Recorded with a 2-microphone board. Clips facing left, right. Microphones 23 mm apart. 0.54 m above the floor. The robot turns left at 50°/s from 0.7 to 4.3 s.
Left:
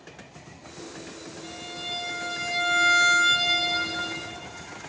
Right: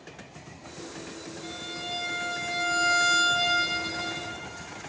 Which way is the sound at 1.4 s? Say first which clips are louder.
Left 1 dB; 160° right.